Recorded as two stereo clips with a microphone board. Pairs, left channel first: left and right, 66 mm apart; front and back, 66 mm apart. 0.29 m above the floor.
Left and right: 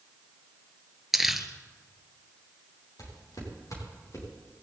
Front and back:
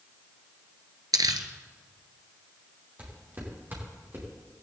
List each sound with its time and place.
1.1 s crumpling: 175° right, 1.2 m
3.0 s footsteps: 115° left, 6.5 m; by 4.3 s 130° left, 7.5 m